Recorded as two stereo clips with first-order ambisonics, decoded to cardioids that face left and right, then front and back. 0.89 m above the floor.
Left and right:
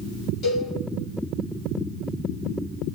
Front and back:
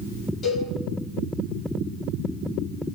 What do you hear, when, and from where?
0.4 s a cowbell: 50° left, 1.8 m